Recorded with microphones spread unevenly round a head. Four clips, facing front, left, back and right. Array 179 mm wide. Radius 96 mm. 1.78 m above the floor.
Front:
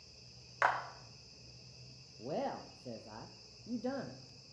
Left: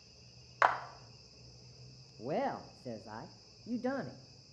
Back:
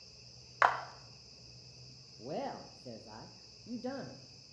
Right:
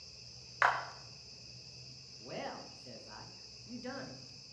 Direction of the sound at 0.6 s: 155° left.